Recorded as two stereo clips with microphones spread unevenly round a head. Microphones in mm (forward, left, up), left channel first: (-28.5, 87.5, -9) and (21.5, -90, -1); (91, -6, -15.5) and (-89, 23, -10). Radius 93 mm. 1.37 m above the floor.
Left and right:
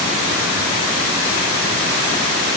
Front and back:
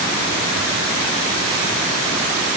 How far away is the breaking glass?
No breaking glass in this recording.